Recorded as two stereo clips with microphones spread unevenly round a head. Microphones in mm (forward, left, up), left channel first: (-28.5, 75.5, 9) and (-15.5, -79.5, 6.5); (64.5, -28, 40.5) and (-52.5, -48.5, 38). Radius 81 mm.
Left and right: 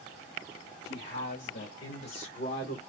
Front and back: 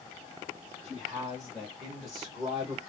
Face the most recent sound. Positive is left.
turn(degrees=100)